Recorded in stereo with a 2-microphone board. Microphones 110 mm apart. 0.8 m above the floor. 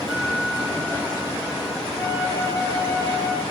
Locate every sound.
0.1 s a guitar: 5° left (ahead or behind), 6 m
1.9 s a flute: 20° left (ahead or behind), 6.5 m